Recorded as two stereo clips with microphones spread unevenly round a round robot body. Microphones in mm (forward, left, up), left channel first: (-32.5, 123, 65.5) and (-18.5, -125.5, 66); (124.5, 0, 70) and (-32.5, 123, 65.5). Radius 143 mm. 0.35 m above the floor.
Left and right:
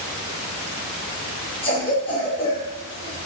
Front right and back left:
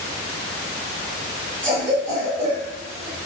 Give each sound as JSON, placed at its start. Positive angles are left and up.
{"t": 1.6, "sound": "a cough", "azimuth_deg": 150, "distance_m": 1.4}